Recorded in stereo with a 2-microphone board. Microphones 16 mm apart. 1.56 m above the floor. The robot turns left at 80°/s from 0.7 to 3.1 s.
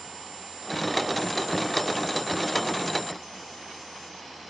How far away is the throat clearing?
I don't hear throat clearing.